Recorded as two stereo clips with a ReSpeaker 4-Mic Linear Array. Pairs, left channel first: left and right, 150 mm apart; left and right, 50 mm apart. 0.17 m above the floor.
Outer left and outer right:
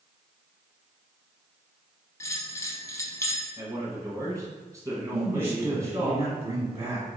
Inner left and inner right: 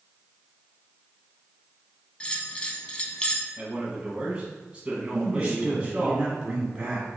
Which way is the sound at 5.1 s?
15° right (ahead or behind).